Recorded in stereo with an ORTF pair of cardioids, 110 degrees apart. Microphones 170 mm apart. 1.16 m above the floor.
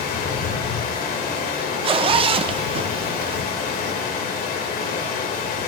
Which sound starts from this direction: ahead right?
A zipper, at 1.8 s.